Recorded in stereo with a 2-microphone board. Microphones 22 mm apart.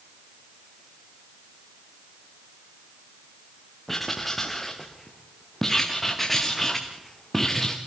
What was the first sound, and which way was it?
Writing, 10° left (ahead or behind).